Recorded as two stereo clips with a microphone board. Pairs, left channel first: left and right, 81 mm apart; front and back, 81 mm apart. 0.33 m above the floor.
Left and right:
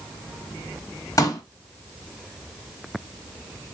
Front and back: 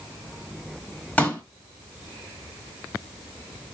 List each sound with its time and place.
1.2 s a pop: 65° left, 1.2 m